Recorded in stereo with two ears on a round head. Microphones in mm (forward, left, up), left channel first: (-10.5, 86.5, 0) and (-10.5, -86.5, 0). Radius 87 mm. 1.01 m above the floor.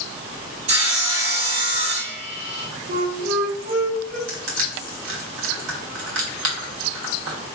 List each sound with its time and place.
0.7 s sawing: 35° right (ahead or behind), 1.2 m
2.9 s a flute: 50° right (ahead or behind), 1.2 m
4.3 s crushing: 75° right (ahead or behind), 2 m